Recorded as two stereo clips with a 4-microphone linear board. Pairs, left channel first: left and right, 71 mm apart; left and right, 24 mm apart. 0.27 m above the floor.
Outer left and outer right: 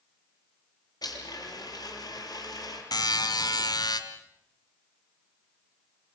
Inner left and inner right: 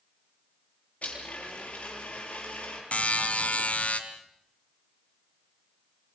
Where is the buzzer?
65° left (ahead or behind), 2 m.